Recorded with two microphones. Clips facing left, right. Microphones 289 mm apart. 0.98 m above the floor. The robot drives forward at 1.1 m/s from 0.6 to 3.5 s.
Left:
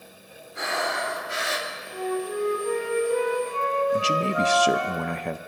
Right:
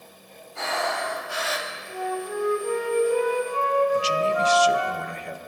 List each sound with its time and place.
0.6 s breathing: 20° left (ahead or behind), 2.5 m; by 1.7 s 35° left (ahead or behind), 1.4 m
1.9 s a flute: 50° left (ahead or behind), 2.0 m; by 4.9 s 25° left (ahead or behind), 3.5 m
3.9 s a man speaking: 75° left (ahead or behind), 0.6 m